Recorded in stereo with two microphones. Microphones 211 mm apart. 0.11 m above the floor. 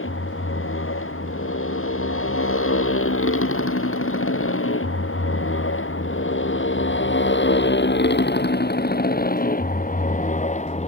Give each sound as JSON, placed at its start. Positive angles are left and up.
{"t": 0.0, "sound": "a motorcycle", "side_deg": 75}